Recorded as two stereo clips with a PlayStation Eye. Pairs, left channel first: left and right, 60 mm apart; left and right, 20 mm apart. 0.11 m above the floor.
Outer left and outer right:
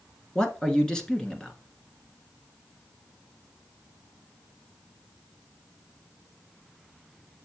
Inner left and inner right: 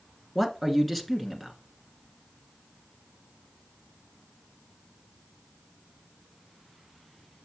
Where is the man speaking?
10° left (ahead or behind), 1.1 m.